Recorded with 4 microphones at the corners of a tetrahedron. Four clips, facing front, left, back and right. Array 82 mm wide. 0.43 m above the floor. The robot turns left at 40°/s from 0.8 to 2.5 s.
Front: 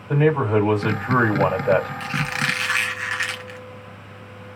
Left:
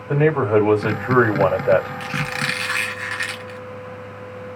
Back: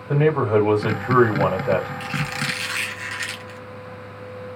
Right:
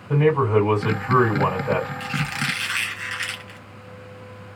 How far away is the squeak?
About 0.8 m.